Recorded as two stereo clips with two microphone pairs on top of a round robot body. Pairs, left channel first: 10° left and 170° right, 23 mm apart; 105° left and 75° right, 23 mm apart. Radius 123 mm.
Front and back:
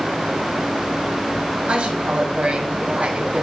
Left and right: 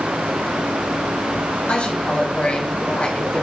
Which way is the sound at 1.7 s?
155° left.